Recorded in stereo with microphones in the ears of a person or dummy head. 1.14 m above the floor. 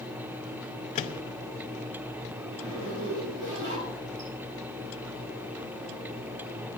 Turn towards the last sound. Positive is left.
turn(degrees=-60)  # may be behind; listen again after turning